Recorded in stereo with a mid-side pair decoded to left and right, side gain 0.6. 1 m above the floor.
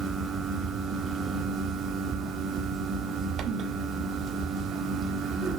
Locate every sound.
0.0 s a fan: 40° right, 1.6 m